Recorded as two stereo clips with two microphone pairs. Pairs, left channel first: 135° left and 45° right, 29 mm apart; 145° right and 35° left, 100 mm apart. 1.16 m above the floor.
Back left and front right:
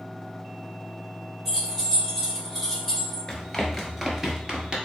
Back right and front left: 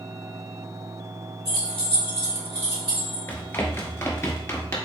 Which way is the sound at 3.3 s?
175° right.